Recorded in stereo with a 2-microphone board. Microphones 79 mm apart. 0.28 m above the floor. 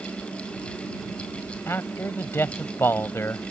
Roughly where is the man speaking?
Left.